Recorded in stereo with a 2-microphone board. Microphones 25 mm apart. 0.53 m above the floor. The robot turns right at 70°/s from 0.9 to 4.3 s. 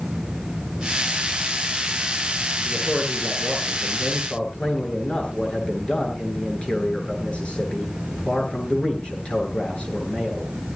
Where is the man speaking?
25° left, 9 m; by 10.5 s 140° left, 9 m.